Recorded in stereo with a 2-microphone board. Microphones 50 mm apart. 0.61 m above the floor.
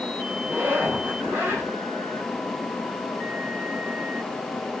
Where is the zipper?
45° right (ahead or behind), 2.5 m.